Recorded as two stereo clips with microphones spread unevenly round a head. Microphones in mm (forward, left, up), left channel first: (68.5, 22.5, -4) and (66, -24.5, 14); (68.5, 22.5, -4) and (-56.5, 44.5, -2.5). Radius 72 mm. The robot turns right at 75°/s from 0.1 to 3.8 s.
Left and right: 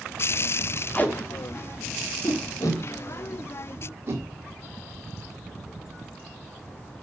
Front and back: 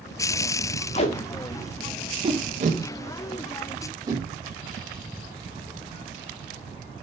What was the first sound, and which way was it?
Tape being pulled, 20° left.